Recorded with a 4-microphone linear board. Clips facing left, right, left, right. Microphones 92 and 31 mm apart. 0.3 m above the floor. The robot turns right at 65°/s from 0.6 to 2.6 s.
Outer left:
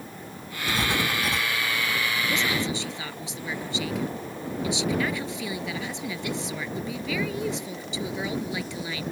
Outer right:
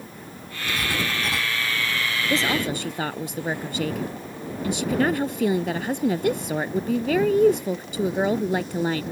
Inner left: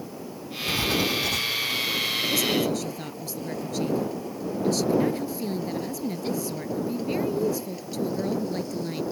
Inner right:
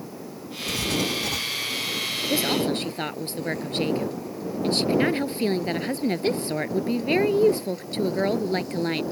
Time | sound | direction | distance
0.7 | writing | 140° left | ?
2.3 | a woman speaking | 30° right (ahead or behind) | ?